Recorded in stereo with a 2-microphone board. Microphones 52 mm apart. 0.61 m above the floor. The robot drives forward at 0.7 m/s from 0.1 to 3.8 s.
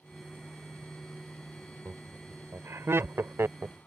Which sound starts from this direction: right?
Laughter, at 1.9 s.